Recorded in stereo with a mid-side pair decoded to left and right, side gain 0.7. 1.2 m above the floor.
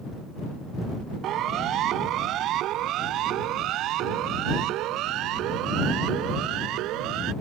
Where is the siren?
50° right; by 7.3 s 60° right.